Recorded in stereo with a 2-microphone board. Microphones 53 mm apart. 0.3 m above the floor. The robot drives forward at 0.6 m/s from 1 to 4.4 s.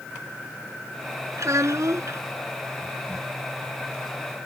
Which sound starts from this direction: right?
A child speaking, at 1.4 s.